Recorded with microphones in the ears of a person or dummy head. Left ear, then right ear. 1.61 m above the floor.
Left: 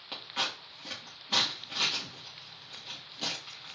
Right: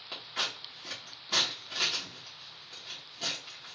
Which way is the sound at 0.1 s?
5° left (ahead or behind).